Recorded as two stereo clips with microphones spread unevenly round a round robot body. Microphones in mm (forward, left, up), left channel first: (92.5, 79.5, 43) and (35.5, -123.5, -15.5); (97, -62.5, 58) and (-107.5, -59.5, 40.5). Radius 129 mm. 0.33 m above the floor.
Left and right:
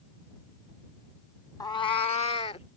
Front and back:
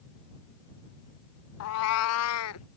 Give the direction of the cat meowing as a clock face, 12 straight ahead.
12 o'clock.